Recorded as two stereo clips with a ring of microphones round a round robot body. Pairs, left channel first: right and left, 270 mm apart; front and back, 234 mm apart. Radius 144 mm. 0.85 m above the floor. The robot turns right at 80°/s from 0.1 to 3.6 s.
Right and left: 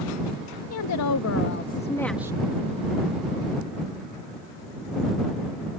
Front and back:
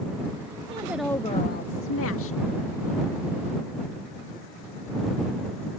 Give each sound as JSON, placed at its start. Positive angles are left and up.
{"t": 0.7, "sound": "a woman speaking", "azimuth_deg": -115}